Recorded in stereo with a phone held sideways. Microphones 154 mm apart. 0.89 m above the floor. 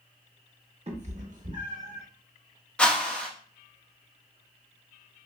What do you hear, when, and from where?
0.9 s a cat meowing: 45° right (ahead or behind), 0.7 m; by 2.0 s 65° right (ahead or behind), 1.2 m
2.8 s a whoosh: 5° left (ahead or behind), 0.7 m